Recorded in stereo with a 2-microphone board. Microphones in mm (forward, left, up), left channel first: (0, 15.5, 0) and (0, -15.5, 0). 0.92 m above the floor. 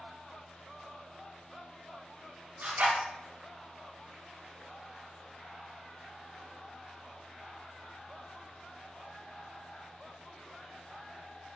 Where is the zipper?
60° right (ahead or behind), 0.6 m.